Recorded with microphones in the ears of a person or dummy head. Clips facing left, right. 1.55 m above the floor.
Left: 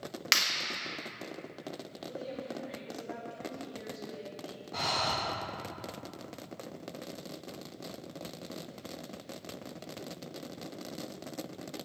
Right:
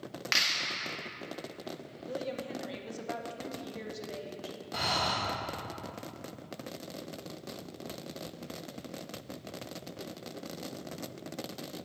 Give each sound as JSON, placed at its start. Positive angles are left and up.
{"t": 0.3, "sound": "a clap", "side_deg": 50, "distance_m": 1.7}
{"t": 2.0, "sound": "a woman speaking", "side_deg": -65, "distance_m": 1.9}
{"t": 4.7, "sound": "breathing", "side_deg": -15, "distance_m": 4.5}